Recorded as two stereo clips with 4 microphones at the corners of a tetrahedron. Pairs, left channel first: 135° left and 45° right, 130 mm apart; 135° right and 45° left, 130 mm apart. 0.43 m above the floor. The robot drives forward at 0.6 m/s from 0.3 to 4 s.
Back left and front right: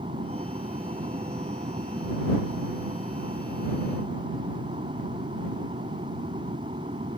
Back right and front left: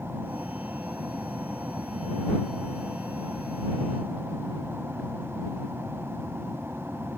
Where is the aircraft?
30° right.